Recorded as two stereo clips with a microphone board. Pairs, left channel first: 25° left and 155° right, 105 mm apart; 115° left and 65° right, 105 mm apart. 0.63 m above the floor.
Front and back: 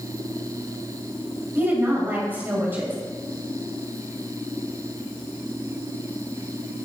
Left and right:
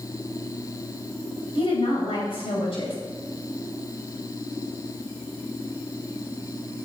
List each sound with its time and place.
1.6 s a woman speaking: 135° left, 3.5 m